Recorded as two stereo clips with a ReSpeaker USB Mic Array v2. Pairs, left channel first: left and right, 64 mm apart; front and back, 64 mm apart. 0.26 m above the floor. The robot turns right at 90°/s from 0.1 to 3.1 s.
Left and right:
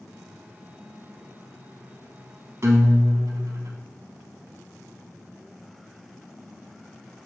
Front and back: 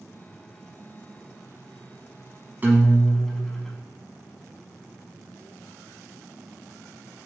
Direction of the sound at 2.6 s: 125° right.